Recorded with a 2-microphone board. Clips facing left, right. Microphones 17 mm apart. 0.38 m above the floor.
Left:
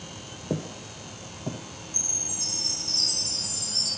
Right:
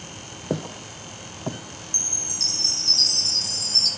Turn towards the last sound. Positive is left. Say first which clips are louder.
# right 4 dB
turn(degrees=-60)  # may be behind; listen again after turning